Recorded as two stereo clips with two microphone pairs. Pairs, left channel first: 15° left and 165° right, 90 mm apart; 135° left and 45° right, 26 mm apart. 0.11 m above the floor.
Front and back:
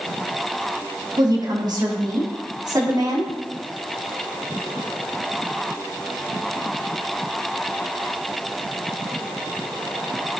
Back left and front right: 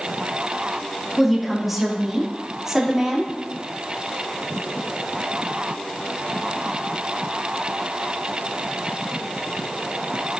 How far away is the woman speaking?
About 5 m.